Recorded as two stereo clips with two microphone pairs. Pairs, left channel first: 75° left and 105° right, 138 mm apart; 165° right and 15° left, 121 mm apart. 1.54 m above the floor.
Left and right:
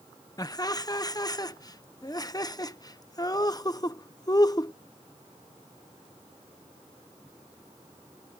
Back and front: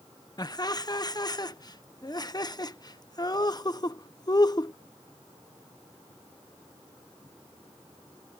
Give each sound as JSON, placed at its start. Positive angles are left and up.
{"t": 0.4, "sound": "laughter", "azimuth_deg": 135}